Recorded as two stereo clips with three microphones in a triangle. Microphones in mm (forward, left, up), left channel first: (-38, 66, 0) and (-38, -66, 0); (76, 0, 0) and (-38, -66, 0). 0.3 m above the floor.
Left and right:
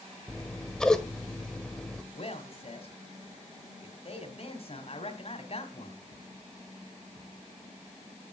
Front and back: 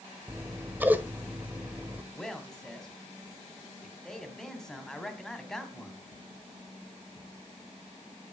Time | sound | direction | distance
0.3 | scissors | 165° left | 1.3 m
2.1 | a man speaking | 115° left | 2.5 m